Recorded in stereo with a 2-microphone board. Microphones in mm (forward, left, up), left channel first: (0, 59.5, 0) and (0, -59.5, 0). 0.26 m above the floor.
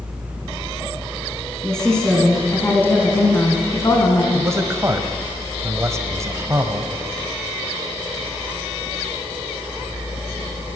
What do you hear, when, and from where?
1.6 s a woman speaking: 5° left (ahead or behind), 2.5 m; by 4.2 s 35° left (ahead or behind), 2.5 m
4.3 s a man speaking: 25° right (ahead or behind), 1.0 m